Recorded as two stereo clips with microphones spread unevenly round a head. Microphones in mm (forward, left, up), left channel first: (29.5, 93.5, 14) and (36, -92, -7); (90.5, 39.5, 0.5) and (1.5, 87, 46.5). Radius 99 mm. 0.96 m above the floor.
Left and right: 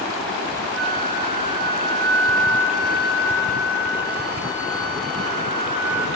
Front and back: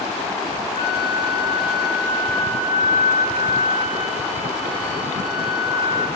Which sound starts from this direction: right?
A flute, at 0.7 s.